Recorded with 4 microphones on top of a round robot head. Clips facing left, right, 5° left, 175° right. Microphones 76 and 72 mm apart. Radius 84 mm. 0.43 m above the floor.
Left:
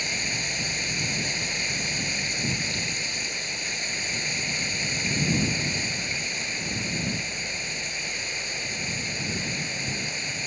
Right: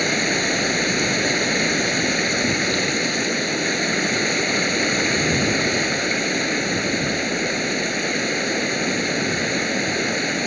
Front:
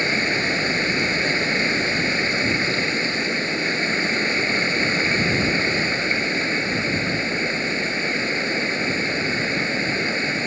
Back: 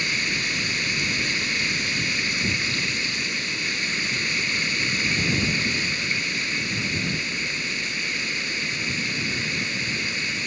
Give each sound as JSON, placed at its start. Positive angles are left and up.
{"t": 0.0, "sound": "running water", "azimuth_deg": -60}